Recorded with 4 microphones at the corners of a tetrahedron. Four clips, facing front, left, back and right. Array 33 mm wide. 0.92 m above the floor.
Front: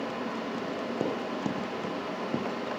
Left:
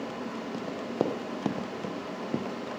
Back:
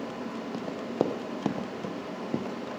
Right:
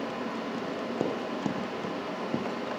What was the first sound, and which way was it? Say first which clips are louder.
Running footsteps: left 3 dB, back 6 dB; 145° left.